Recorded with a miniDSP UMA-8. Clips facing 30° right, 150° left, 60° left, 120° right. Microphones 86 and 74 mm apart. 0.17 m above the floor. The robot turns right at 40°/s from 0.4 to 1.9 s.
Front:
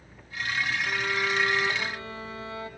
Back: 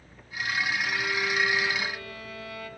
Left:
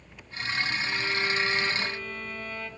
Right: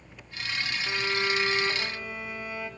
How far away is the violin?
About 1.3 m.